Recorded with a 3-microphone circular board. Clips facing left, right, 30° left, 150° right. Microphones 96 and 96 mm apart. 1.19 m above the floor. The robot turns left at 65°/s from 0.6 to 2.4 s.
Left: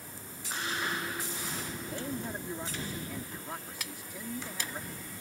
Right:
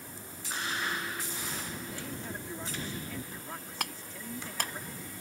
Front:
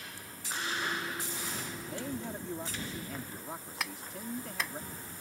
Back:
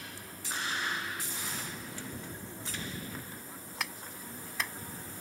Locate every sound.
1.9 s a man speaking: 45° left; by 4.8 s 15° left
3.8 s a clap: 60° right